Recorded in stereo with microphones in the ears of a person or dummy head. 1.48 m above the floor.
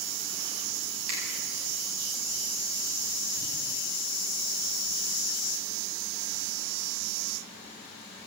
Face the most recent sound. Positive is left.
turn(degrees=-60)  # may be behind; listen again after turning